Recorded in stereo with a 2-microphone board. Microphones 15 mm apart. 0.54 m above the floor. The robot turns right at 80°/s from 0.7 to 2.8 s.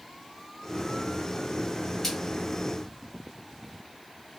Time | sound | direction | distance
2.0 | a splash | 30° left (ahead or behind) | 1.5 m